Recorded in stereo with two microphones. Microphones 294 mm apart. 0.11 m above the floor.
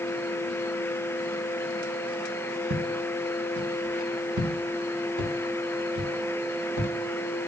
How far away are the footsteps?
About 2 m.